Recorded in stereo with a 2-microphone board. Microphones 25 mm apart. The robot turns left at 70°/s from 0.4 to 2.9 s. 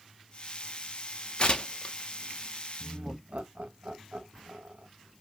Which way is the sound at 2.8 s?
65° right (ahead or behind).